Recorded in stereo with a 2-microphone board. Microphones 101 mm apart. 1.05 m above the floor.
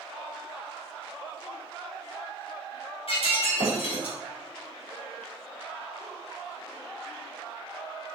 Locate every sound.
3.1 s breaking glass: 65° left (ahead or behind), 3.5 m